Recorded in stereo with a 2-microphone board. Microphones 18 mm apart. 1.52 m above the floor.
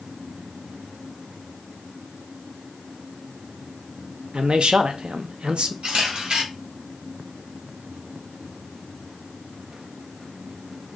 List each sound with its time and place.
4.3 s a man speaking: 70° right (ahead or behind), 0.7 m
5.8 s a camera shutter: 70° right (ahead or behind), 2.5 m